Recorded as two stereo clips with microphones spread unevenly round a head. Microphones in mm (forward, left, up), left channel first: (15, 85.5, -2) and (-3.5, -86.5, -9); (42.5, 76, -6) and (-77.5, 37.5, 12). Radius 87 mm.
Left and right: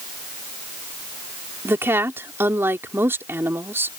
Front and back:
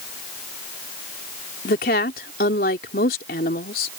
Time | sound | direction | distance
1.6 | a woman speaking | 20° right | ?